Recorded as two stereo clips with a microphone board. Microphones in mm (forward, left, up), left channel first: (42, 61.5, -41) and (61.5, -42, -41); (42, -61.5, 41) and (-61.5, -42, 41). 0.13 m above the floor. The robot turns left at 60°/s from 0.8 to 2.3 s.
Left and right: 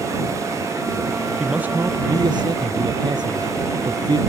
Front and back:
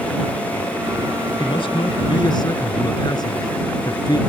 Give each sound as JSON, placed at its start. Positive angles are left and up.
{"t": 1.4, "sound": "a man speaking", "azimuth_deg": 5}